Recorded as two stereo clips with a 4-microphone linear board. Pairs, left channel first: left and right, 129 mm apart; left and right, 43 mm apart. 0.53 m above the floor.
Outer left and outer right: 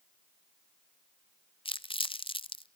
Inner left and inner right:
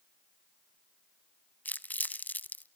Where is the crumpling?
45° left (ahead or behind), 0.6 m.